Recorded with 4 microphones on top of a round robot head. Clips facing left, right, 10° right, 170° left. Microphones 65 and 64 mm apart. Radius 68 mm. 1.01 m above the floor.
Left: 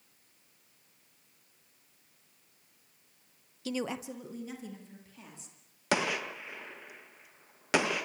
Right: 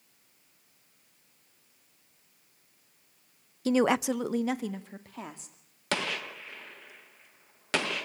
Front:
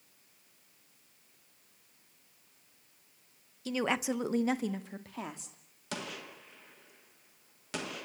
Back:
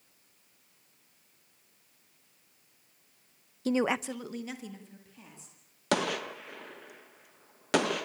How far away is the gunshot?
About 1.3 m.